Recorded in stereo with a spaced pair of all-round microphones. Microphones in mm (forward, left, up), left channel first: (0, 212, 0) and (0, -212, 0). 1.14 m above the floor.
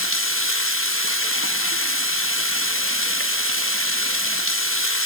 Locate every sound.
0.0 s running water: 30° left (ahead or behind), 0.9 m